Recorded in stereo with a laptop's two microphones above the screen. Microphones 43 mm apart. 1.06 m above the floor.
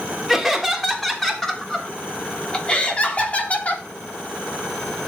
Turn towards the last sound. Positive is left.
turn(degrees=35)  # may be behind; listen again after turning